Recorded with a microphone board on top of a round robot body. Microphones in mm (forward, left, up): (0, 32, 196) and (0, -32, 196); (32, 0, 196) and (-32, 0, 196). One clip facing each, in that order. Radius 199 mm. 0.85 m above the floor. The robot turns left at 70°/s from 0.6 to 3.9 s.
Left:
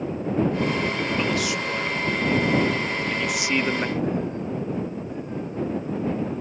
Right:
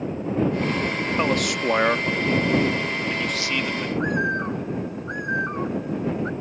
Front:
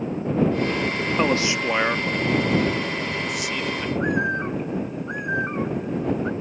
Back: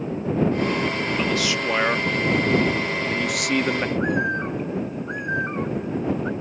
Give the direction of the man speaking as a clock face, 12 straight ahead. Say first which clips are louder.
Right 2 dB, front 4 dB; 1 o'clock.